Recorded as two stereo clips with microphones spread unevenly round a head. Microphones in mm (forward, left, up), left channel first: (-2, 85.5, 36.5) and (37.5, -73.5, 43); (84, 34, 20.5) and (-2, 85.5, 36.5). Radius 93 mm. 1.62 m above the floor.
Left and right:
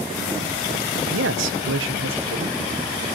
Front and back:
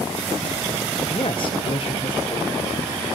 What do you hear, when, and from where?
1.1 s a man speaking: 95° right, 1.2 m